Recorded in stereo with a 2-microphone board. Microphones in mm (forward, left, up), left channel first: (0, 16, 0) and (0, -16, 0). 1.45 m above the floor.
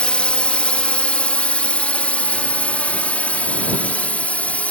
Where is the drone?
35° left (ahead or behind); by 4.7 s 45° left (ahead or behind).